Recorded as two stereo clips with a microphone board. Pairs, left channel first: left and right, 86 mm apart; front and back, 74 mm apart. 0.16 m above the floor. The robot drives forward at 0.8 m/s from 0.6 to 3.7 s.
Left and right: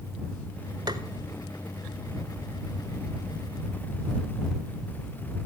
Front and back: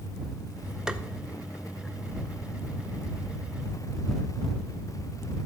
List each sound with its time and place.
0.9 s tapping: 100° right, 0.6 m; by 1.0 s 115° right, 0.7 m